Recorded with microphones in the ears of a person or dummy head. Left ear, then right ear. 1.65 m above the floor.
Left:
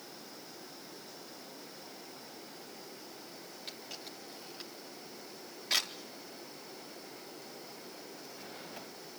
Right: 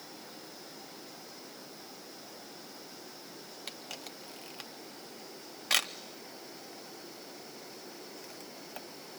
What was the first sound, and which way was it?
A camera shutter, 25° right (ahead or behind).